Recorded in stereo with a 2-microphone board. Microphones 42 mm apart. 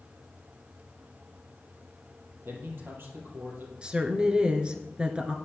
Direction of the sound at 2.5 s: 60° right (ahead or behind).